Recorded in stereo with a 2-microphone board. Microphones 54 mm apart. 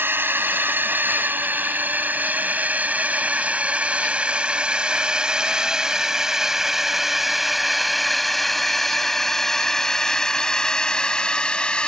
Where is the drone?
45° right (ahead or behind); by 11.9 s 15° left (ahead or behind).